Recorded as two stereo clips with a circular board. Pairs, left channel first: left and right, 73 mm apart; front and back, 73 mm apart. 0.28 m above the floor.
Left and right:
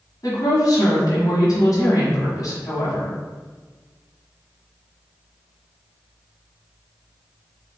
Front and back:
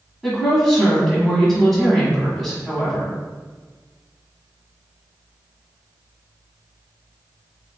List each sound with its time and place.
0.2 s a woman speaking: 85° left, 1.6 m